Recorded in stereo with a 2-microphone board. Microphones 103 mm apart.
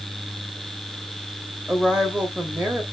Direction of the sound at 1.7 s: 10° right (ahead or behind).